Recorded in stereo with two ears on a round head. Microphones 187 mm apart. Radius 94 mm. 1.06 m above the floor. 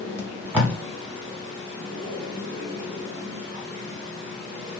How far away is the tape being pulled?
About 1.0 m.